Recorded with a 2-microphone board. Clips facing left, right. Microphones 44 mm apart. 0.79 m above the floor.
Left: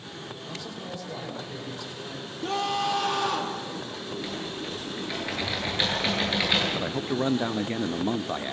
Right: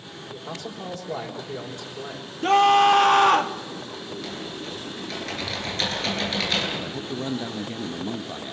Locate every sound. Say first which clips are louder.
0.3 s a man speaking: right 5 dB; 70° right (ahead or behind), 3.5 m
2.4 s a scream: right 11 dB; 60° right (ahead or behind), 1.3 m
4.1 s typing on a keyboard: left 1 dB; 15° left (ahead or behind), 8 m
6.8 s a man speaking: left 3 dB; 35° left (ahead or behind), 0.6 m